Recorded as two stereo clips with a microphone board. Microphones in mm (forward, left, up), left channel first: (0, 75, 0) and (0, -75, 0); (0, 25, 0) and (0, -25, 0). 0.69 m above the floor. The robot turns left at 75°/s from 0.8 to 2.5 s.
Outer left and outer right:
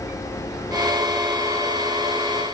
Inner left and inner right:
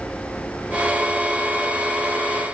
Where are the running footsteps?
No running footsteps in this recording.